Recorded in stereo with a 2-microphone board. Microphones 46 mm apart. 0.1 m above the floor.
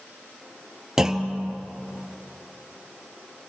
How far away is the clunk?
About 1.0 m.